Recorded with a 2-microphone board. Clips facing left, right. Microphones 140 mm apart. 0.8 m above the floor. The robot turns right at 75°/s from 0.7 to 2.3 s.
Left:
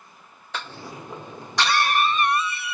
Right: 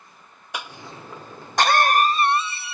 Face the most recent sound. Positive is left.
turn(degrees=-30)  # may be behind; listen again after turning